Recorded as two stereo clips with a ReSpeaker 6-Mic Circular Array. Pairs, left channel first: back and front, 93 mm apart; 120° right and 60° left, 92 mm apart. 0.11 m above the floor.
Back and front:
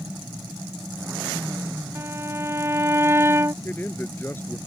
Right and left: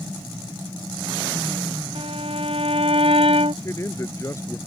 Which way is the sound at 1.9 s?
60° left.